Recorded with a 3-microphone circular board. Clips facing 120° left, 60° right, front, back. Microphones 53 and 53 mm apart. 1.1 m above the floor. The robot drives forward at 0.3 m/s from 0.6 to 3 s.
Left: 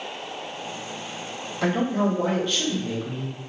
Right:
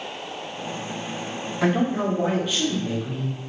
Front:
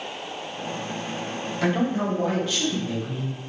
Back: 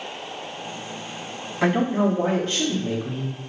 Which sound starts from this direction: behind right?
A man speaking, at 1.6 s.